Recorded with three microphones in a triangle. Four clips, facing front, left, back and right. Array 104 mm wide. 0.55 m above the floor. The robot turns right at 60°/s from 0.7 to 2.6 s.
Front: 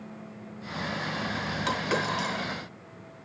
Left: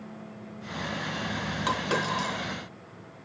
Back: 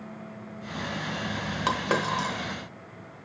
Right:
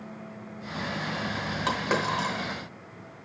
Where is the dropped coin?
175° right, 0.9 m; by 2.3 s 135° right, 0.9 m.